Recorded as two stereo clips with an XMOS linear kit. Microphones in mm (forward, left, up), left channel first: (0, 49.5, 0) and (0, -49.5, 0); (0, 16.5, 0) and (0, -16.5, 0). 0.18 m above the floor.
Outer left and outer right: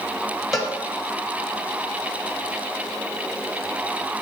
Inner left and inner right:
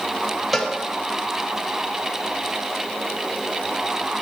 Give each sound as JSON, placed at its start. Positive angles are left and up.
{"t": 0.5, "sound": "a cowbell", "side_deg": 0, "distance_m": 0.9}